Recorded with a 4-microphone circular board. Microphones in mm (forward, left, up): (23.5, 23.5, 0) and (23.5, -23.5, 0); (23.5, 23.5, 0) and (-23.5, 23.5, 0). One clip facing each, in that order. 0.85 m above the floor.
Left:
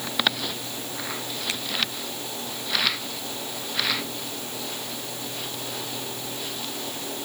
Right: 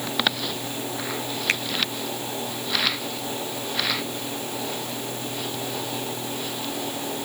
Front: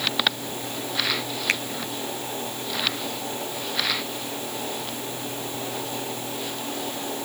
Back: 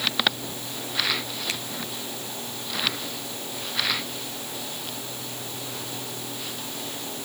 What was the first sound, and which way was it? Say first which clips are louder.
A finger snap: right 9 dB, front 9 dB; 45° right.